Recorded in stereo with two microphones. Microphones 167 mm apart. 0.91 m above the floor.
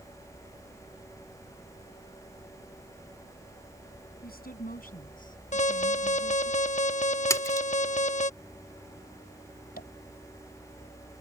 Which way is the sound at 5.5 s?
45° left (ahead or behind).